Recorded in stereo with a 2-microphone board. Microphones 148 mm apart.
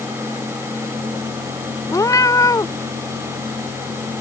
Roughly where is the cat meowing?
Left.